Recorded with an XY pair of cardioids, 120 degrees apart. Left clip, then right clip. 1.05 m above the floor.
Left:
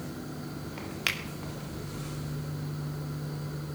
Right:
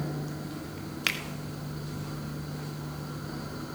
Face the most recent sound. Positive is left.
turn(degrees=-5)